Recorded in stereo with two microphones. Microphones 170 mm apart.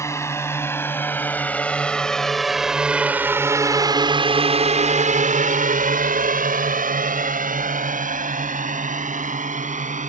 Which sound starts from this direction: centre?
A drone, at 0.0 s.